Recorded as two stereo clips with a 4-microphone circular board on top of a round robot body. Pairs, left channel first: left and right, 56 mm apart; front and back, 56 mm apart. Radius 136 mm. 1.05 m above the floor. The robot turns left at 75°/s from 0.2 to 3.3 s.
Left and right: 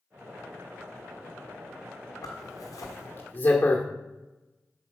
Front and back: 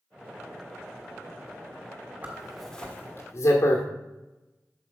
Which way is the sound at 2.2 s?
120° left.